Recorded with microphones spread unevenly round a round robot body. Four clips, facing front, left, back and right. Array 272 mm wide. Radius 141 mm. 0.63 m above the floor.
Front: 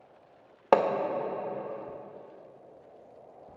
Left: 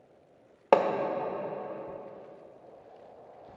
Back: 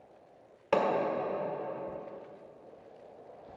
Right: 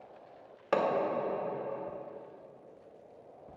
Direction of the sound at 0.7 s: 50° left.